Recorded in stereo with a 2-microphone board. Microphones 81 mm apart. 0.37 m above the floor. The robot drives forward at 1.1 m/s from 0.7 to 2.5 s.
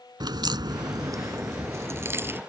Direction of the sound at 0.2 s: 60° right (ahead or behind).